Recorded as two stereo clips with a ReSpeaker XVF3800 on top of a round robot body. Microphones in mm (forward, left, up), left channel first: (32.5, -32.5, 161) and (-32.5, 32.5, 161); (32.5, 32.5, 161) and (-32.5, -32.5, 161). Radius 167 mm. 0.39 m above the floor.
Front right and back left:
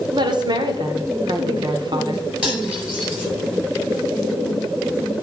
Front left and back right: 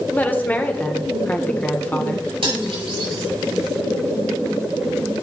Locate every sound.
0.1 s a woman speaking: 115° left, 1.3 m
2.4 s cutlery clinking: 145° right, 6 m